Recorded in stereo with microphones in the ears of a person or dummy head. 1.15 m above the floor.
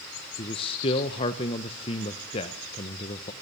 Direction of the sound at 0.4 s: 30° left (ahead or behind).